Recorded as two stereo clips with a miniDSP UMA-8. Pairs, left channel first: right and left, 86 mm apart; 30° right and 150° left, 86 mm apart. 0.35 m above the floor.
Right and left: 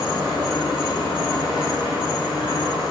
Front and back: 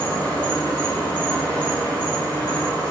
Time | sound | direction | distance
0.0 | an insect | 100° right | 4 m